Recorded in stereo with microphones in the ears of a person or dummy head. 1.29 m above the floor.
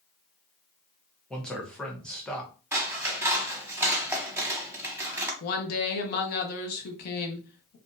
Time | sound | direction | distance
1.3 | a man speaking | 5° left (ahead or behind) | 0.8 m
2.7 | scissors | 10° right (ahead or behind) | 0.8 m
5.4 | a woman speaking | 50° left (ahead or behind) | 0.8 m